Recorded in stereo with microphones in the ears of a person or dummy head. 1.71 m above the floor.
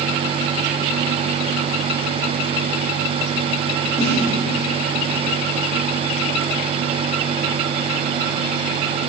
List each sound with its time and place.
4.0 s a snare drum: 5° left (ahead or behind), 2.5 m